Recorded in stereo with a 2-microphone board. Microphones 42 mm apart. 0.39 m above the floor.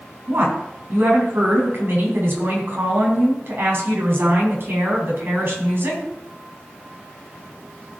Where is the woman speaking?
60° right (ahead or behind), 3 m.